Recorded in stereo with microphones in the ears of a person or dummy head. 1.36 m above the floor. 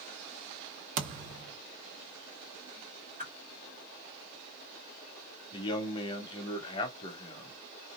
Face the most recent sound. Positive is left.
turn(degrees=25)  # may be behind; listen again after turning